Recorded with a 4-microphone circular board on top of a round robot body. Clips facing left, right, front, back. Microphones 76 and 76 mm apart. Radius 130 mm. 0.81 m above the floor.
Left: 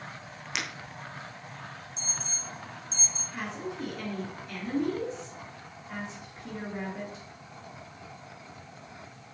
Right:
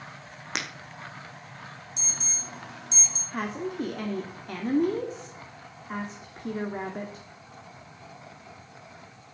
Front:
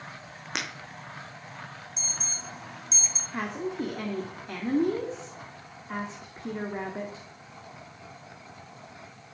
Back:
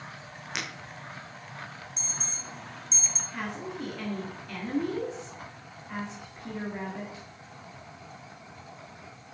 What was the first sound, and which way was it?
Breaking glass, 50° right.